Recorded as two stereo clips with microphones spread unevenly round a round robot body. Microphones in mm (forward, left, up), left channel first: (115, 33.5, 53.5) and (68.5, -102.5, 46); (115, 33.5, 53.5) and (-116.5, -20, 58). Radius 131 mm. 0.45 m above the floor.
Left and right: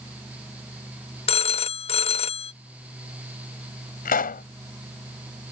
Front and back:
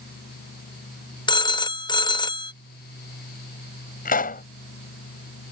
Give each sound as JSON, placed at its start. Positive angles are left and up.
{"t": 1.3, "sound": "a phone ringing", "azimuth_deg": 75}
{"t": 4.0, "sound": "a pop", "azimuth_deg": 65}